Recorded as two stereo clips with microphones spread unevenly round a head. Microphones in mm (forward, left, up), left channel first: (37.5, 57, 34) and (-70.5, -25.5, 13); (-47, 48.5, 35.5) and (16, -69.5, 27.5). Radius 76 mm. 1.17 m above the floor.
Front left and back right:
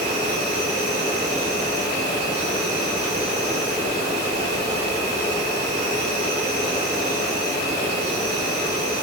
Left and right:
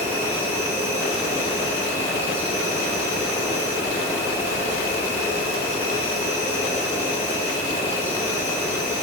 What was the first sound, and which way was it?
An insect, 135° right.